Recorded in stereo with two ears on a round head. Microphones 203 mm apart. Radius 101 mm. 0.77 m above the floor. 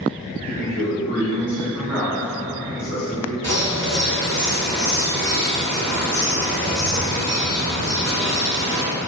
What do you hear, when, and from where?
0.5 s a man speaking: 35° left (ahead or behind), 0.6 m; by 3.3 s 25° left (ahead or behind), 1.7 m
3.4 s a bird: 25° left (ahead or behind), 1.8 m